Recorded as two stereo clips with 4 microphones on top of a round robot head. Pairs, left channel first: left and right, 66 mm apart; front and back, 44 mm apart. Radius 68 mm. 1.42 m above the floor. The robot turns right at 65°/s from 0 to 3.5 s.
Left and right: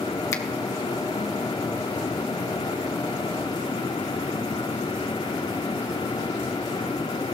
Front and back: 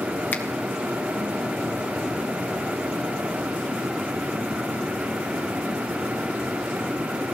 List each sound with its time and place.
0.3 s a finger snap: 50° left, 1.6 m; by 0.4 s 55° left, 1.6 m